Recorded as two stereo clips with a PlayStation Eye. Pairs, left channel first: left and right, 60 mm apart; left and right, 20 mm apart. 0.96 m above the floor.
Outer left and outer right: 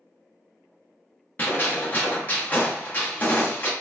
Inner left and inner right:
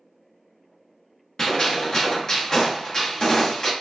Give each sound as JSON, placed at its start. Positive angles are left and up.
{"t": 1.4, "sound": "a gunshot", "side_deg": 30, "distance_m": 1.0}